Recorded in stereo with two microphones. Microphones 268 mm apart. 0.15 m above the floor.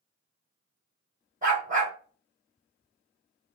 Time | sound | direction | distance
1.4 | a dog barking | 25° right (ahead or behind) | 2 m